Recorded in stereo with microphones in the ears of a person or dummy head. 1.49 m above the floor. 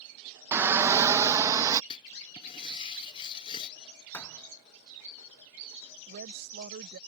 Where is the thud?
15° left (ahead or behind).